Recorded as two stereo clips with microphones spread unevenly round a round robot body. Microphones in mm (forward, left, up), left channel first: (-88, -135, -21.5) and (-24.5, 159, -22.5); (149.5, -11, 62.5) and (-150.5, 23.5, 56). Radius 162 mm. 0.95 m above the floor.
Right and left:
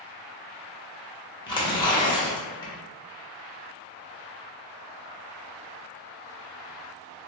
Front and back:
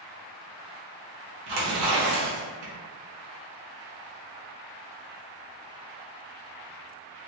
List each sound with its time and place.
1.5 s tearing paper: 175° right, 1.2 m